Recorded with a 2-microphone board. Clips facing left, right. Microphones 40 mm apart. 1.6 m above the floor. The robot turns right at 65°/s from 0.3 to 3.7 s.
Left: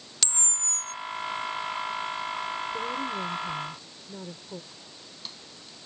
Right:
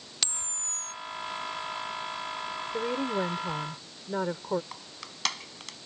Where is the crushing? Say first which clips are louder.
Right 4 dB; 85° right.